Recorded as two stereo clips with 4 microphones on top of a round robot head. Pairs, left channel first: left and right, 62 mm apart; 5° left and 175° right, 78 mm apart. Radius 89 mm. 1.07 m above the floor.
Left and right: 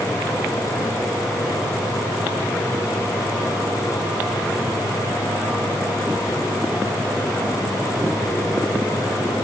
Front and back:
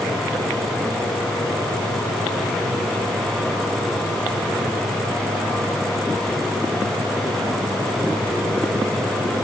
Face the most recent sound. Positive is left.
No sound to turn to.